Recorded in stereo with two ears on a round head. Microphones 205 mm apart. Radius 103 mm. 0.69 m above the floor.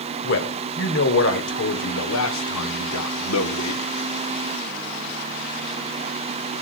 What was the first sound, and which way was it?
A man speaking, 50° left (ahead or behind).